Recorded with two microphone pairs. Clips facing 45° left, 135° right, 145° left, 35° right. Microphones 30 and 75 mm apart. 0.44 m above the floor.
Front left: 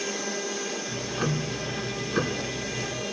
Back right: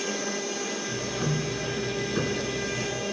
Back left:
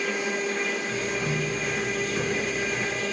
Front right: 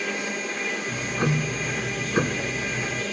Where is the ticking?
15° right, 0.8 m.